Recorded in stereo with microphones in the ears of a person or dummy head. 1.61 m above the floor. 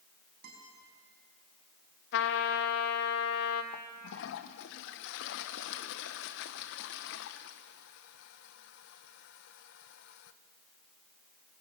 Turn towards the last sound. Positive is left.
turn(degrees=70)  # may be behind; listen again after turning